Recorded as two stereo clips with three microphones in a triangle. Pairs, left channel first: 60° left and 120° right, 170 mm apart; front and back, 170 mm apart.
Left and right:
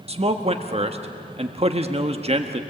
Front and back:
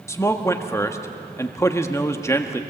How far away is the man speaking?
About 1.3 m.